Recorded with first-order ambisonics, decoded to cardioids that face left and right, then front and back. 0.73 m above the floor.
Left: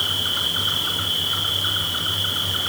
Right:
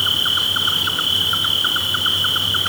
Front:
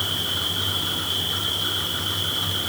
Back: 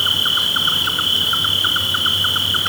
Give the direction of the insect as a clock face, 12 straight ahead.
5 o'clock.